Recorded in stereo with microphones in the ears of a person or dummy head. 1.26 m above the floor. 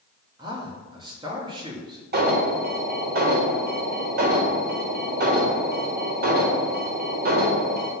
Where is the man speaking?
25° right (ahead or behind), 1.7 m.